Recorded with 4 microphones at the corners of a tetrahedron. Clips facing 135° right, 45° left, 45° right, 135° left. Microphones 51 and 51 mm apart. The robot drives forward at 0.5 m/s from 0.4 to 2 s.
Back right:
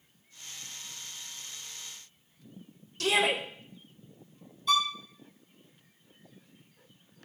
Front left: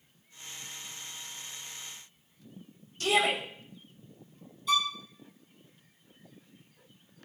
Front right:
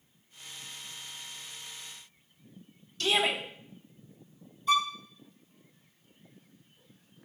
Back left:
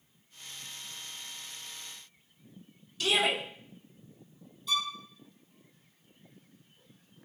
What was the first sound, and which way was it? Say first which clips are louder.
A shout: even, even; 145° right.